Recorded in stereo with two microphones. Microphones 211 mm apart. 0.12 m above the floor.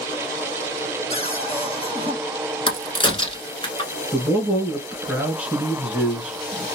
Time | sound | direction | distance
1.1 | a cupboard door | 30° left (ahead or behind) | 1.2 m
2.7 | a crack | 25° left (ahead or behind) | 0.8 m
4.1 | a man speaking | 5° right (ahead or behind) | 1.5 m